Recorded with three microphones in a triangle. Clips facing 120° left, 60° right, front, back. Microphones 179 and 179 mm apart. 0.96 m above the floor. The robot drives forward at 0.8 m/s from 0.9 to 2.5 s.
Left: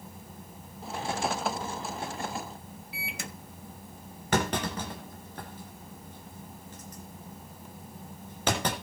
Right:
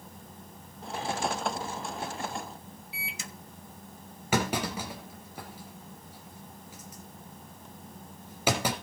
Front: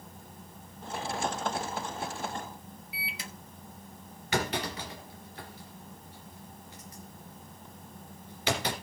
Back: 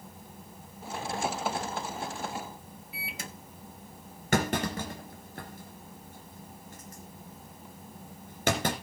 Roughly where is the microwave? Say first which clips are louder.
Left 4 dB, back 2 dB; behind left.